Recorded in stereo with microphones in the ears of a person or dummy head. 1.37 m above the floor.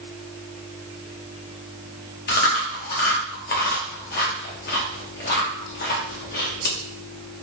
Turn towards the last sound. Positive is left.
turn(degrees=40)  # may be behind; listen again after turning